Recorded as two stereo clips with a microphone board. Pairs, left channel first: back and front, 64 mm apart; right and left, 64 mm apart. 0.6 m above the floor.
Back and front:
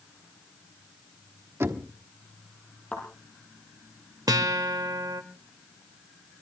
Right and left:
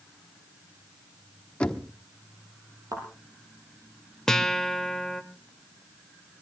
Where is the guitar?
10° right, 1.0 m.